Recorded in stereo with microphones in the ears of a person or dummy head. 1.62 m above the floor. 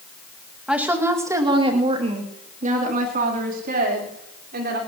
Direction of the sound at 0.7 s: 5° right (ahead or behind).